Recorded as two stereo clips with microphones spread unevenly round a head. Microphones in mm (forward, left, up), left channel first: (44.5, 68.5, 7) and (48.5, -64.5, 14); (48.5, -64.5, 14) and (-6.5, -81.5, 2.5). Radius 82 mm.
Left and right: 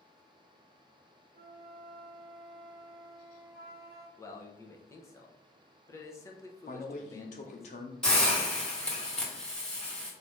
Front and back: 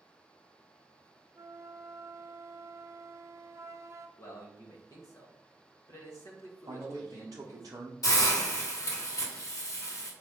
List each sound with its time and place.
1.4 s a flute: 125° right, 0.6 m
4.2 s a man speaking: 25° left, 1.0 m
6.7 s a man speaking: 145° left, 0.7 m
8.0 s a hiss: 5° left, 1.6 m